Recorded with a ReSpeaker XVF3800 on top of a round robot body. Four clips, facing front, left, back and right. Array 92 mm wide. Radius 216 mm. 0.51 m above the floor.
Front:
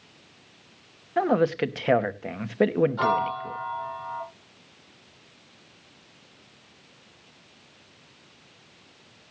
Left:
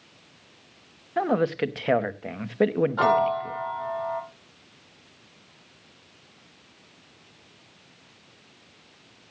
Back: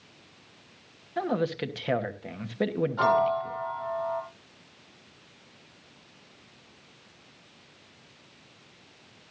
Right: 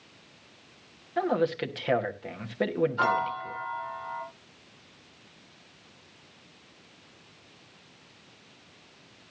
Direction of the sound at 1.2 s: 30° left.